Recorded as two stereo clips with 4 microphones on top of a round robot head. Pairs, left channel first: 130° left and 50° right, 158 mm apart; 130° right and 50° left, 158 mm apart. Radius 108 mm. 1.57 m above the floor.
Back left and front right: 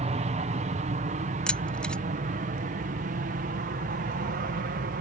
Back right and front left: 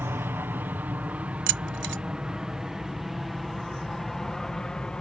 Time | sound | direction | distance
0.0 | an aircraft | 20° right | ?
1.5 | keys jangling | 45° left | ?